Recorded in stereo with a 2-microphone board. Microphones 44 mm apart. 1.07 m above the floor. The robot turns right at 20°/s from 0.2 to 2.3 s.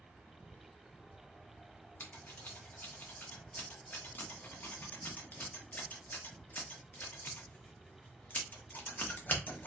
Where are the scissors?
45° left (ahead or behind), 1.0 m.